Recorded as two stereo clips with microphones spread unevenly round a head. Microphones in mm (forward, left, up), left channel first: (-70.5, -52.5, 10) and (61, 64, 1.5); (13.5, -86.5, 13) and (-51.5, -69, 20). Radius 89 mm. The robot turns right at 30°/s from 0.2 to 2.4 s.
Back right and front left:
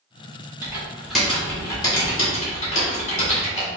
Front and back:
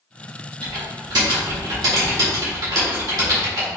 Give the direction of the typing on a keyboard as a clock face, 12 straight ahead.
8 o'clock.